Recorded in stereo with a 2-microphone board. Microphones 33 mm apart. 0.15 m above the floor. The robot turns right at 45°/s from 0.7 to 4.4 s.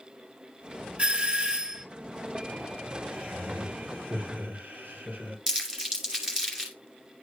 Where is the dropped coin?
I don't hear a dropped coin.